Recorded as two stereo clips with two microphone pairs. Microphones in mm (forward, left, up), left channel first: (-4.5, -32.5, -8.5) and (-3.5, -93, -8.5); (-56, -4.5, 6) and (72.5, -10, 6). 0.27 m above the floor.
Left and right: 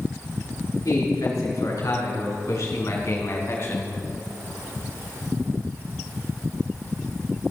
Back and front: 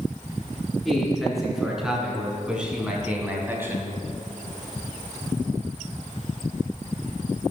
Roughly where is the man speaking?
Left.